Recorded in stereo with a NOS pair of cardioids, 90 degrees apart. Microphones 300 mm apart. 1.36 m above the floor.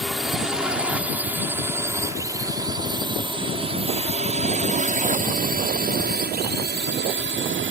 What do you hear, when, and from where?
0.0 s a drone: straight ahead; by 7.7 s 40° right